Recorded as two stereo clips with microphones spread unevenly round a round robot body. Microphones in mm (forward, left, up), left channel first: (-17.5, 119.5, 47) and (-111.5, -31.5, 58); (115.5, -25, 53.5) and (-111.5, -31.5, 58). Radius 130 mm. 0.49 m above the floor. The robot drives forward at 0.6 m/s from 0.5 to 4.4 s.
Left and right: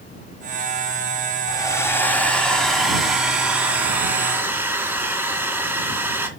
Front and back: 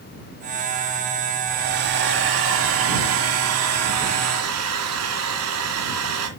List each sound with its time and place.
1.5 s a hair dryer: 130° left, 1.3 m; by 6.3 s 160° left, 3 m